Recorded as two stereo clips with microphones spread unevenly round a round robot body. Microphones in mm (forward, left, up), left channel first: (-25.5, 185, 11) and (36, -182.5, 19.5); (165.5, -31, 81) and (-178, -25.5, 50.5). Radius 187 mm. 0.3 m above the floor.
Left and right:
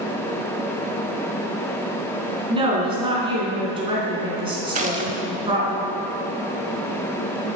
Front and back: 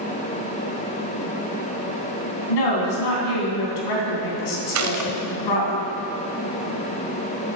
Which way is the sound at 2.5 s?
5° right.